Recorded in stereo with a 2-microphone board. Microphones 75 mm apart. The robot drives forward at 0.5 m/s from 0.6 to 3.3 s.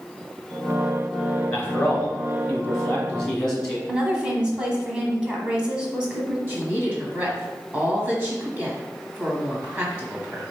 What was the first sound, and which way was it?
A man speaking, 20° left (ahead or behind).